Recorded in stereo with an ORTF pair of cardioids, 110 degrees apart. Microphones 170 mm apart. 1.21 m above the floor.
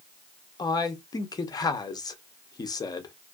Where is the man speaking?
25° left, 0.8 m.